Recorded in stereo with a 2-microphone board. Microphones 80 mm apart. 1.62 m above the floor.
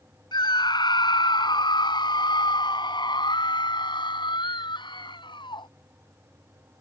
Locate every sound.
0.3 s a scream: 60° left (ahead or behind); by 5.7 s 75° left (ahead or behind)